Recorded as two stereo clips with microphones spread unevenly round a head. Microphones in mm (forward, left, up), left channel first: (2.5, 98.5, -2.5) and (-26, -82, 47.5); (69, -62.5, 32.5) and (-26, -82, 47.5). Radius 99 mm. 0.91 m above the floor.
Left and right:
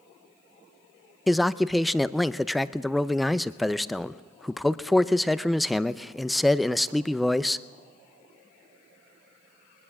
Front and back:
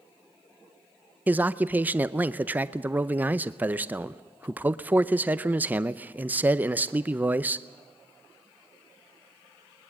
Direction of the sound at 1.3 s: 125° left.